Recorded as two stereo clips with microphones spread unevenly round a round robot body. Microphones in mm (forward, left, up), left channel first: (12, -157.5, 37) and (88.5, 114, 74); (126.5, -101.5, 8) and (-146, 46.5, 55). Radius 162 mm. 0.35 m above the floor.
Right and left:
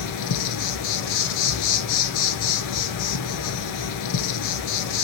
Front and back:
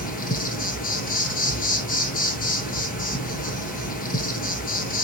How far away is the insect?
About 0.8 m.